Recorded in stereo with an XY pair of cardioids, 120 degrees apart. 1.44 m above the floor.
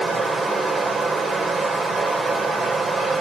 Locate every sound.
0.0 s running water: 25° right, 3.5 m